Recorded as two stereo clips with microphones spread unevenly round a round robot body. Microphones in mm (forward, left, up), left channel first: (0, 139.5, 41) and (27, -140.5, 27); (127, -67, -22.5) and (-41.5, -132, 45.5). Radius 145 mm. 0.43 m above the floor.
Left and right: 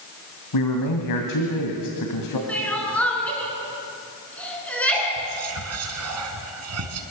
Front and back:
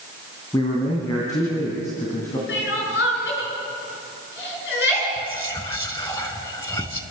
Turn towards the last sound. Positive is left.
turn(degrees=-50)